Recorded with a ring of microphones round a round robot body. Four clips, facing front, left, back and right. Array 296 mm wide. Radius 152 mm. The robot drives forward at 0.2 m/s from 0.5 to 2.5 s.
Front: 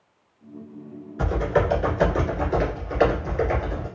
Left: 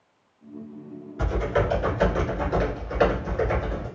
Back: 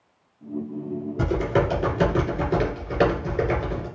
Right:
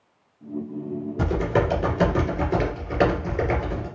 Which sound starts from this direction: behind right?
Typing on a keyboard, at 1.2 s.